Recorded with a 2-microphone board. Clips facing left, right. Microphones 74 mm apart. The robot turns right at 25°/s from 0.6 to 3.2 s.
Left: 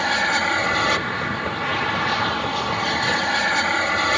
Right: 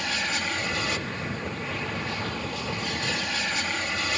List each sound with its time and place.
0.0 s an aircraft: 60° left; by 4.2 s 125° left